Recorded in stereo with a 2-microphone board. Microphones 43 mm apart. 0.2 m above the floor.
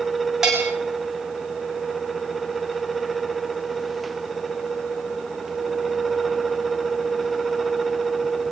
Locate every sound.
0.4 s a bell: 15° right (ahead or behind), 5.5 m